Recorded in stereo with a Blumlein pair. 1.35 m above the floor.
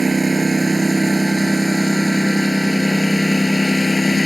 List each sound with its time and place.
0.0 s a lawn mower: 10° right; by 4.3 s 5° left